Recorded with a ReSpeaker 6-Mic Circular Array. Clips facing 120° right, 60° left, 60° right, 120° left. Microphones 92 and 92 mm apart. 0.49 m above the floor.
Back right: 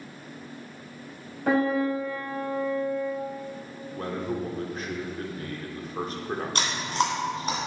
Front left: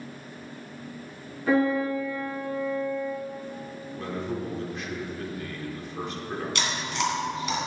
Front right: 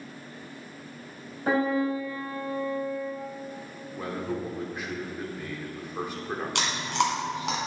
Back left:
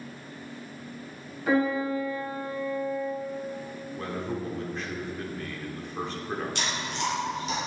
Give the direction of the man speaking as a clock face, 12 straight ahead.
4 o'clock.